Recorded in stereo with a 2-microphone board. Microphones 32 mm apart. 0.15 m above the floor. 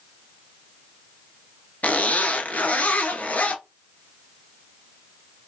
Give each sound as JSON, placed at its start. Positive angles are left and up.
{"t": 1.8, "sound": "a zipper", "side_deg": 60, "distance_m": 0.6}